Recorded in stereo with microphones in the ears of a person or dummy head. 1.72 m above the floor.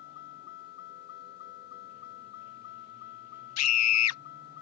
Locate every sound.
0.0 s a vehicle: 60° left (ahead or behind)
3.6 s a scream: 85° left